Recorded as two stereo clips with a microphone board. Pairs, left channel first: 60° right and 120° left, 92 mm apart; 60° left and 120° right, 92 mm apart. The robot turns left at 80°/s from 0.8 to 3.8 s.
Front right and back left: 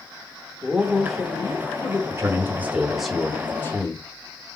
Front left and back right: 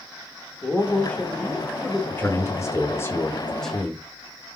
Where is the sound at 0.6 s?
50° left, 0.8 m; by 2.0 s 45° right, 0.8 m.